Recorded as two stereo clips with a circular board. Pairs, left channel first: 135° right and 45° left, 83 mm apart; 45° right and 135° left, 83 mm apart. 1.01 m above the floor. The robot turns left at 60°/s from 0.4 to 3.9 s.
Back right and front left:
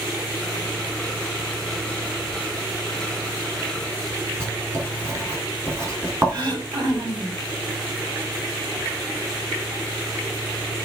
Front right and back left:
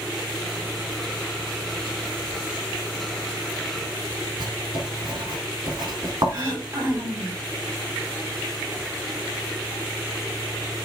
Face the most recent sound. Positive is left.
turn(degrees=80)